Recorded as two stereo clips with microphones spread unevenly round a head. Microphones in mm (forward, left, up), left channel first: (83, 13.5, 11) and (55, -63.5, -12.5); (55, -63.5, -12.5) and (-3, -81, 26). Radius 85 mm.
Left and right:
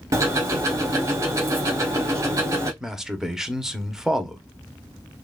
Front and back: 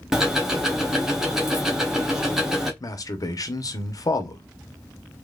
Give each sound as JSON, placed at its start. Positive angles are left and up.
{"t": 0.1, "sound": "ticking", "azimuth_deg": -175, "distance_m": 0.9}
{"t": 2.8, "sound": "a man speaking", "azimuth_deg": -20, "distance_m": 1.1}